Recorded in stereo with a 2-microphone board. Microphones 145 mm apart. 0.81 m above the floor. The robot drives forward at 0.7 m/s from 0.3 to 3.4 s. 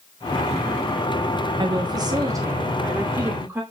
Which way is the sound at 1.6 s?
35° right (ahead or behind).